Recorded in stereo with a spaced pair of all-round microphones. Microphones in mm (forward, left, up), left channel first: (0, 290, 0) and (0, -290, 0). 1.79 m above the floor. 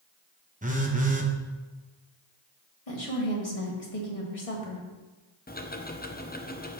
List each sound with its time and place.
0.6 s a phone buzzing: 15° right (ahead or behind), 0.9 m
2.9 s a woman speaking: 75° left (ahead or behind), 1.9 m
5.5 s ticking: 15° left (ahead or behind), 0.6 m